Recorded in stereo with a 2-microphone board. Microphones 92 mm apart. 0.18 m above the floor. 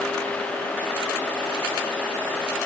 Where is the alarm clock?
I don't hear an alarm clock.